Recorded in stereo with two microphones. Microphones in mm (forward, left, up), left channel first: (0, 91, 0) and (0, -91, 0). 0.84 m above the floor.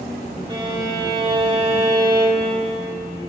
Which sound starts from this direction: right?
A violin, at 0.5 s.